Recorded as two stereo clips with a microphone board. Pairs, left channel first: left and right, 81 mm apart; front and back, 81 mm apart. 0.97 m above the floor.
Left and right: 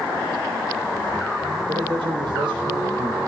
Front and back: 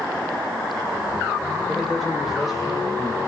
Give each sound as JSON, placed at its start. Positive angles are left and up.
{"t": 1.7, "sound": "a man speaking", "azimuth_deg": -90, "distance_m": 3.5}